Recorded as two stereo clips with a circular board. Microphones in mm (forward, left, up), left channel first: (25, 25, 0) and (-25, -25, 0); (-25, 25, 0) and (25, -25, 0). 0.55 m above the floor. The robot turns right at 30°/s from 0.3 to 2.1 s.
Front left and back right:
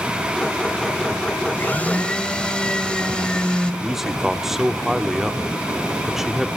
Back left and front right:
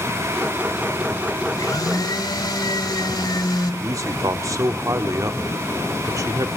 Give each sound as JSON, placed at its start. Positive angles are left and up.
{"t": 1.5, "sound": "a blender", "azimuth_deg": 100, "distance_m": 1.6}
{"t": 3.8, "sound": "a man speaking", "azimuth_deg": -55, "distance_m": 0.9}